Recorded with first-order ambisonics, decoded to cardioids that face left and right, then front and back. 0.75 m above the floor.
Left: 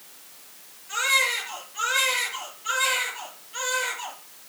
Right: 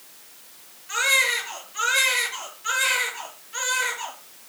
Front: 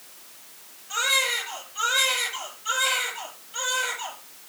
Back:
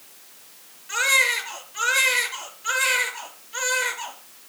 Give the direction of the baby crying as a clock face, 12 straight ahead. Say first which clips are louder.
Right 2 dB, back 4 dB; 5 o'clock.